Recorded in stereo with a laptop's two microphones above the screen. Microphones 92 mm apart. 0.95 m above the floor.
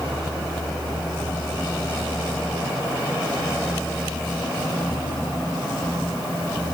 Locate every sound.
Only background noise.